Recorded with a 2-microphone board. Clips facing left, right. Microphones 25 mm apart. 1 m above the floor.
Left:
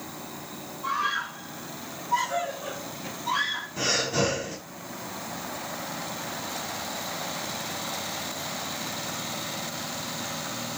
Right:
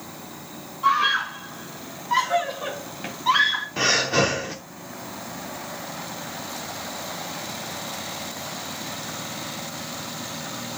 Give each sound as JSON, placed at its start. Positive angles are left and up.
{"t": 0.8, "sound": "a scream", "side_deg": -50, "distance_m": 1.8}
{"t": 3.8, "sound": "breathing", "side_deg": -50, "distance_m": 2.0}